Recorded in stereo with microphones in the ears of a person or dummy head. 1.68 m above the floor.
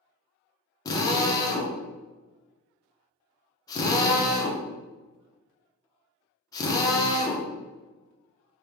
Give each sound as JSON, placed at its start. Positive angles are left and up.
{"t": 0.8, "sound": "a drill", "side_deg": 20, "distance_m": 0.7}